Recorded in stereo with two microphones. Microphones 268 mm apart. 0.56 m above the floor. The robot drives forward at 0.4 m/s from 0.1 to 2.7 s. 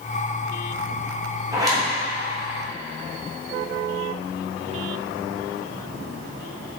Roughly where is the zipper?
Centre.